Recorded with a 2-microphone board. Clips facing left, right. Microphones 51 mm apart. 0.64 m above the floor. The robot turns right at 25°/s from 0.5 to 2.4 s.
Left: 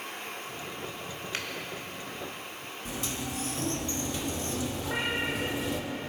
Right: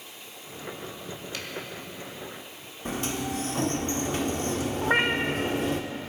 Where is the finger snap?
45° left (ahead or behind), 1.4 m.